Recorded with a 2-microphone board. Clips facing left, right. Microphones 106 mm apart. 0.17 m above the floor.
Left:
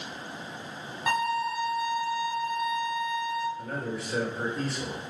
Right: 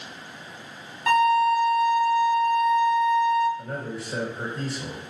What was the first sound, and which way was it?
A violin, 15° left (ahead or behind).